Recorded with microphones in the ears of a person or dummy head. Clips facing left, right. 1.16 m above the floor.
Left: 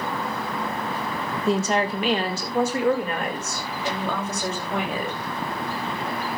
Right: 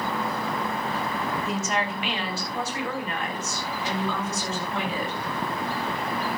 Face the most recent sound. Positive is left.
turn(degrees=50)  # may be behind; listen again after turning